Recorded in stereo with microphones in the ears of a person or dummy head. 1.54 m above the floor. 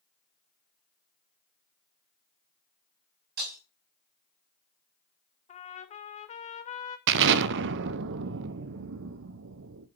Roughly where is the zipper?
I don't hear a zipper.